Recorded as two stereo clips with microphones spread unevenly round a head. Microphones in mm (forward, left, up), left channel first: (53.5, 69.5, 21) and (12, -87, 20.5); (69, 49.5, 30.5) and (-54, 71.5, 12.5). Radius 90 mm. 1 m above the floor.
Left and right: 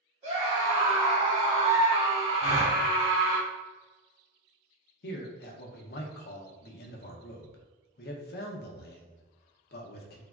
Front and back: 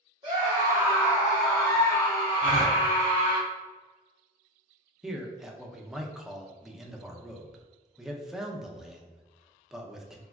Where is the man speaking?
90° left, 0.5 m.